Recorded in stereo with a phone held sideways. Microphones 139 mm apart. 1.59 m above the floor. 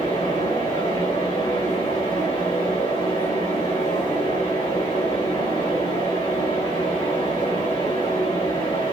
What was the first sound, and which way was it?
A fan, 40° left (ahead or behind).